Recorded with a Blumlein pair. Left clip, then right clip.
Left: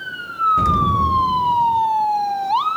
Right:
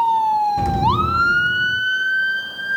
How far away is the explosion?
About 0.8 m.